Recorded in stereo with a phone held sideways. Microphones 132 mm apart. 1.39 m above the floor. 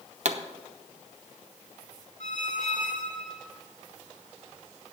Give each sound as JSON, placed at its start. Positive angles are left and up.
{"t": 0.2, "sound": "a pop", "side_deg": -60, "distance_m": 0.8}
{"t": 2.2, "sound": "a squeak", "side_deg": 70, "distance_m": 1.1}